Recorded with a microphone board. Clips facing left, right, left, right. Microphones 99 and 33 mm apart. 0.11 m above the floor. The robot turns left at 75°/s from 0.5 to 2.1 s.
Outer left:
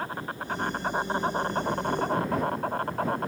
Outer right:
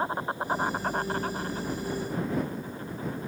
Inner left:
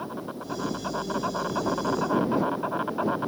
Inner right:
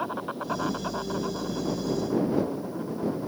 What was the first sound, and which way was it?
An insect, 155° right.